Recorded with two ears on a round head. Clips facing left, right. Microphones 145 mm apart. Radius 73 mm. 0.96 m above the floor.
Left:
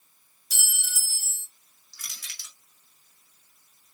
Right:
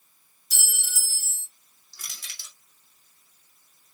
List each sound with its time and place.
0.5 s a clink: 35° right (ahead or behind), 1.9 m
1.9 s crushing: 25° right (ahead or behind), 3 m